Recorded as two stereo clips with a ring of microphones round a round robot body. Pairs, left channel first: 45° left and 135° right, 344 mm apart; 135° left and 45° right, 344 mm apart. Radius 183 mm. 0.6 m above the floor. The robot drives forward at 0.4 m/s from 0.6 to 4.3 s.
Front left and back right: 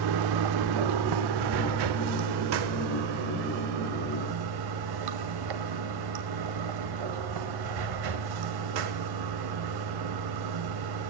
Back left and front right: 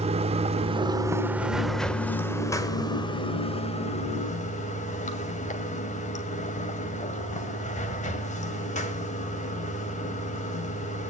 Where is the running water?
120° right, 1.1 m; by 11.1 s 155° right, 2 m.